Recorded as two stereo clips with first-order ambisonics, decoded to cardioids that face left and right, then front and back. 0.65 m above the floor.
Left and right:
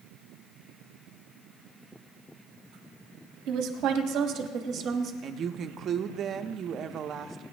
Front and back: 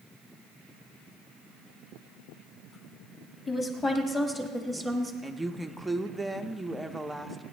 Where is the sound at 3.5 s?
60° right, 1.7 m; by 5.1 s 100° right, 1.1 m.